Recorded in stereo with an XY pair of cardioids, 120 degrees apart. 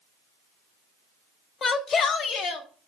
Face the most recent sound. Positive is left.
turn(degrees=70)